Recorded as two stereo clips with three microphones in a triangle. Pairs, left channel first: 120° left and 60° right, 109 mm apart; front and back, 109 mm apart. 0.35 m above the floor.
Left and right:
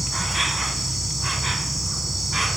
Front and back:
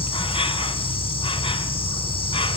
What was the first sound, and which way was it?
An insect, 30° left.